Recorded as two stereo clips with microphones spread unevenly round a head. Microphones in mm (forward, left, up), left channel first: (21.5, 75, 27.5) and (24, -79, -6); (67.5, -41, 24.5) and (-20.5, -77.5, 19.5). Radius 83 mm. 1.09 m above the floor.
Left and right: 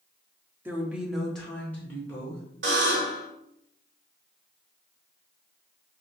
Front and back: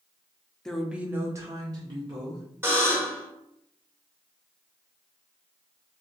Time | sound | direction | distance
0.7 | a woman speaking | 60° right | 0.6 m
2.6 | a buzzer | 95° right | 1.3 m